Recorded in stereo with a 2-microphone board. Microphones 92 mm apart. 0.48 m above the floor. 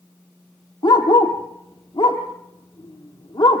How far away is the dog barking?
About 3.5 m.